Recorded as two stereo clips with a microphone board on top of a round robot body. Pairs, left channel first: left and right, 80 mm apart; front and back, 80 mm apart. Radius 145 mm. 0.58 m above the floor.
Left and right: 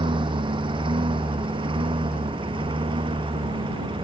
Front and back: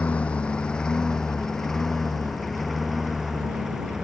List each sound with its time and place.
0.0 s a lawn mower: 75° right; by 4.0 s 95° right